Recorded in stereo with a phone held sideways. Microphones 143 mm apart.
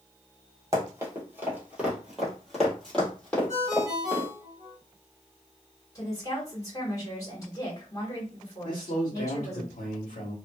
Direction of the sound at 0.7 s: 20° right (ahead or behind).